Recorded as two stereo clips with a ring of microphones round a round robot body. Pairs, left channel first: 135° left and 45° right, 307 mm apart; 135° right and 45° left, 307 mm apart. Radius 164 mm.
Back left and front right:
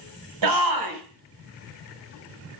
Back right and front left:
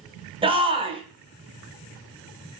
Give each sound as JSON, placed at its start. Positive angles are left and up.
{"t": 0.4, "sound": "a shout", "azimuth_deg": -30, "distance_m": 4.5}